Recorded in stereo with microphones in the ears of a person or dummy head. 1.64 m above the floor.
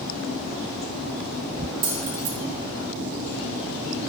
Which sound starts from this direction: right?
Keys jangling, at 1.8 s.